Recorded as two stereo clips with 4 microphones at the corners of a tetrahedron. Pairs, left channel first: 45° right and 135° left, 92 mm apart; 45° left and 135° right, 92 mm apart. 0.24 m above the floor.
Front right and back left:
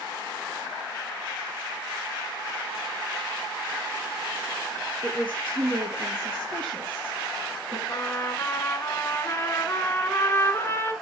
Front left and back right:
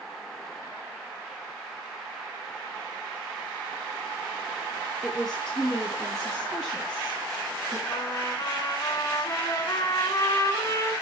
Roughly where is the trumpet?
Ahead.